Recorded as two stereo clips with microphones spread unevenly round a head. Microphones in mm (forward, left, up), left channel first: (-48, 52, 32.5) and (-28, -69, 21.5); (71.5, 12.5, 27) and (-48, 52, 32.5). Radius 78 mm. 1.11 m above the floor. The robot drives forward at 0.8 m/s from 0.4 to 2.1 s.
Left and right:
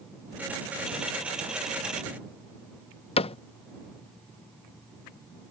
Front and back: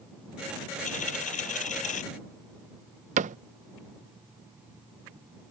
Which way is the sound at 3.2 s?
140° left.